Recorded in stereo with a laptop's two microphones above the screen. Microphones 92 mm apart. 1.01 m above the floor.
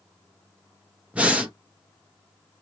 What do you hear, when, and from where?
1.1 s breathing: 15° right (ahead or behind), 0.6 m